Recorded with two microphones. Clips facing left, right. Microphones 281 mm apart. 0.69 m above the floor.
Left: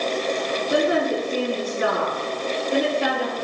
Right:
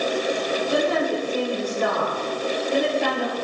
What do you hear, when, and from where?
0.7 s a woman speaking: 15° left (ahead or behind), 6.5 m; by 3.3 s centre (ahead or behind), 6 m